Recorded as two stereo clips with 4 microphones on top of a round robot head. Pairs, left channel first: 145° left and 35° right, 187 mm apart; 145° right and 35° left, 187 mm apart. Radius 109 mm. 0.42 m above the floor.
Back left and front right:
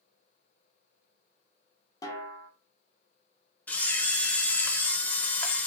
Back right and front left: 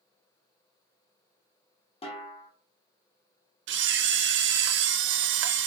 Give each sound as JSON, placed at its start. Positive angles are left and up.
{"t": 2.0, "sound": "a snare drum", "azimuth_deg": -160, "distance_m": 1.1}
{"t": 3.7, "sound": "a camera shutter", "azimuth_deg": 65, "distance_m": 0.5}